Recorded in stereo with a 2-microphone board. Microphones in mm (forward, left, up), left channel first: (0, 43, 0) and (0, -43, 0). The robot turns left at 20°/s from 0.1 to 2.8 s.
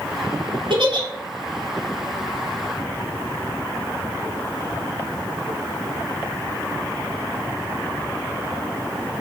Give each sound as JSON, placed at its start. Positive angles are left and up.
{"t": 0.7, "sound": "a giggle", "side_deg": -75, "distance_m": 1.0}